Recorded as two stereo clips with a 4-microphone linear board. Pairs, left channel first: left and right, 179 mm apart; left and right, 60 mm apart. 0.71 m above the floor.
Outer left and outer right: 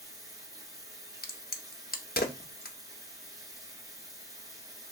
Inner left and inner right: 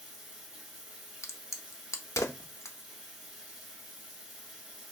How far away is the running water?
About 1.4 m.